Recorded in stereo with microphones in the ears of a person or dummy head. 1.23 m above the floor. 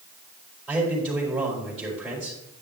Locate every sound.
0.7 s a man speaking: 5° right (ahead or behind), 4.5 m